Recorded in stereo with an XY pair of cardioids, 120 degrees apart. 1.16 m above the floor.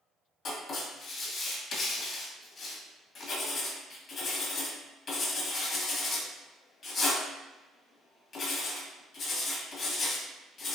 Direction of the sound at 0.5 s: 45° left.